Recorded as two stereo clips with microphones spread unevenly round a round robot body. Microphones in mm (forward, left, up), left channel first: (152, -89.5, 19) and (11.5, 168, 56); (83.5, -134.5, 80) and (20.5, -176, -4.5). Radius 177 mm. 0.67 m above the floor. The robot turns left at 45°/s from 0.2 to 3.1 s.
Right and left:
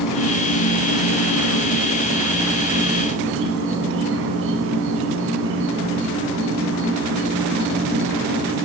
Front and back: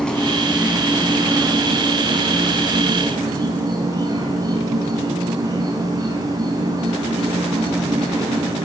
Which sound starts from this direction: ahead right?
An insect, at 0.0 s.